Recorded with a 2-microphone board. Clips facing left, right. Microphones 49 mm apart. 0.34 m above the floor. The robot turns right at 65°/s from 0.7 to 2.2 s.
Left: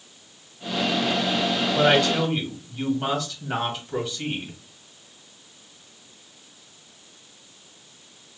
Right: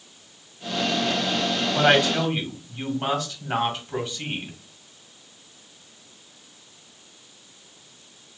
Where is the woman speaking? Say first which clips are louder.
Even; 30° right (ahead or behind), 1.7 m; by 4.5 s 5° right (ahead or behind), 1.7 m.